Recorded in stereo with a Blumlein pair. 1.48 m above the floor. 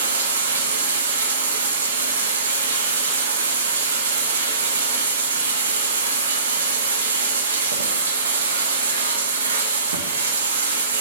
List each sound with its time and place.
0.0 s running water: 65° right, 0.9 m